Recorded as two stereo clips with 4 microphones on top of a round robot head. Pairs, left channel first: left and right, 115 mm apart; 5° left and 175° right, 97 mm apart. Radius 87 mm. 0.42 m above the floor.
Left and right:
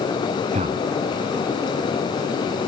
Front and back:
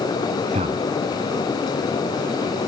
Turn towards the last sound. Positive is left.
turn(degrees=-135)